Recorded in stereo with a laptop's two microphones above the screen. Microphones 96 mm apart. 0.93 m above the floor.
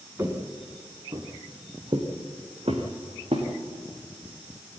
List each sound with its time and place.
0.2 s footsteps: 30° right (ahead or behind), 4 m; by 3.5 s 75° right (ahead or behind), 4.5 m